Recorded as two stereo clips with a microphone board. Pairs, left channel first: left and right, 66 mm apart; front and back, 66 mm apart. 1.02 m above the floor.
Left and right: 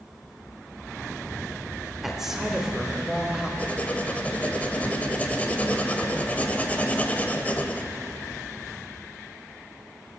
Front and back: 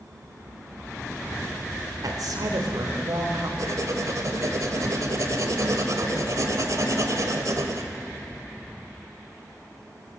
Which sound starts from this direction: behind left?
Writing, at 3.6 s.